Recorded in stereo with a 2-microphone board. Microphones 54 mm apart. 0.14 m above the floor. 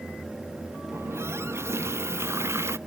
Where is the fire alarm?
I don't hear a fire alarm.